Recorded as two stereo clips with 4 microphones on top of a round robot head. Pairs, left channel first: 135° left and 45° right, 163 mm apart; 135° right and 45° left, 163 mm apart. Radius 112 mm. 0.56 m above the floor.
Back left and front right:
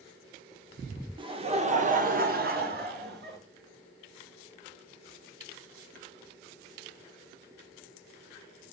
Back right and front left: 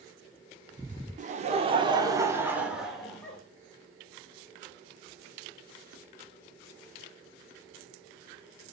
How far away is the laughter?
About 1.3 m.